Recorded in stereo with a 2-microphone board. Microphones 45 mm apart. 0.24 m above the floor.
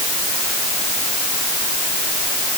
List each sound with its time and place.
Only background noise.